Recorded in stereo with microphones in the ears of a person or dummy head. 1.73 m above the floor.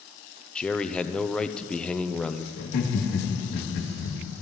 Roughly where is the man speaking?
Centre.